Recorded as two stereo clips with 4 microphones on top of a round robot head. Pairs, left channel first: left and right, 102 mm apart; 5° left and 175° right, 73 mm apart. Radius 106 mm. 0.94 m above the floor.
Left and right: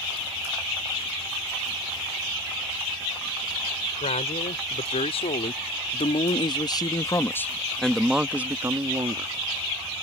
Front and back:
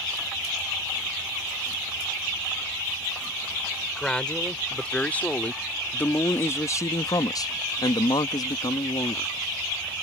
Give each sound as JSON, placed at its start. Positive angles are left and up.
{"t": 4.0, "sound": "a man speaking", "azimuth_deg": 85}